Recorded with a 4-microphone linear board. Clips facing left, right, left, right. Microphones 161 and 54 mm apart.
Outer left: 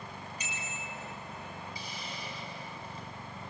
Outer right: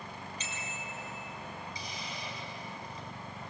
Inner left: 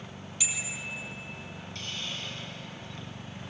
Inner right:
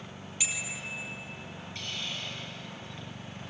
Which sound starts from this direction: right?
A bicycle bell, at 0.4 s.